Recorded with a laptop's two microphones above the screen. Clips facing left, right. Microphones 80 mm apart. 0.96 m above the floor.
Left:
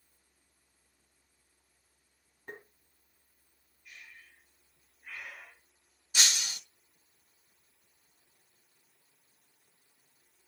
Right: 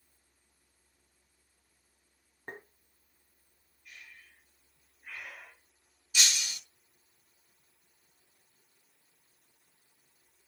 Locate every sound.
2.5 s tapping: 40° right (ahead or behind), 2 m
3.9 s breathing: centre (ahead or behind), 8 m
6.1 s breaking glass: 35° left (ahead or behind), 1.1 m